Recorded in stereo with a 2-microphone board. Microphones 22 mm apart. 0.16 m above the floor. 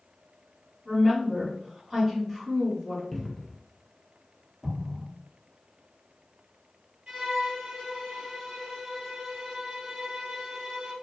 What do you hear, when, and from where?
0.8 s a woman speaking: centre (ahead or behind), 1.7 m
3.1 s a cupboard door: 10° left (ahead or behind), 0.6 m
4.6 s an explosion: 35° right (ahead or behind), 0.9 m
7.1 s a violin: 40° right (ahead or behind), 1.6 m